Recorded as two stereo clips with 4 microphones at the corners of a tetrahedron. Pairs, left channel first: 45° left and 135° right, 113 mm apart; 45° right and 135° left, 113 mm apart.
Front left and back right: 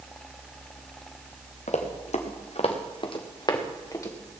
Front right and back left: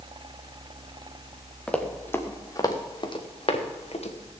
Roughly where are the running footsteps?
Ahead left.